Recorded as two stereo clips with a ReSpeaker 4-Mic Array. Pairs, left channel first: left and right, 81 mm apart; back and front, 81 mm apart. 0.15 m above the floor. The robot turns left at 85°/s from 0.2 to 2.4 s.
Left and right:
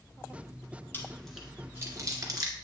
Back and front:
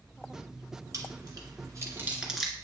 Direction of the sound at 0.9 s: 35° left.